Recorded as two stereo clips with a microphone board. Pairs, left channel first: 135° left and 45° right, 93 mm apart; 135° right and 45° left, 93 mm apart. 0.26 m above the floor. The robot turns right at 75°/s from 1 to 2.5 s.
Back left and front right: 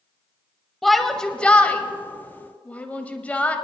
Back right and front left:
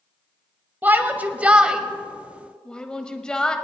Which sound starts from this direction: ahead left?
A shout, at 0.8 s.